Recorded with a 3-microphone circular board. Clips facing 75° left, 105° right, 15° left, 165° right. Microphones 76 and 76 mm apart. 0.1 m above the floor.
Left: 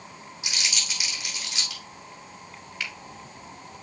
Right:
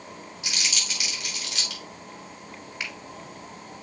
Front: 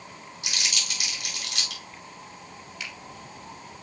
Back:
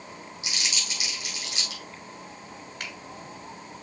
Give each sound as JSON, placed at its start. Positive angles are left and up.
{"t": 0.4, "sound": "crumpling", "azimuth_deg": -15, "distance_m": 4.0}
{"t": 2.8, "sound": "a finger snap", "azimuth_deg": -165, "distance_m": 2.0}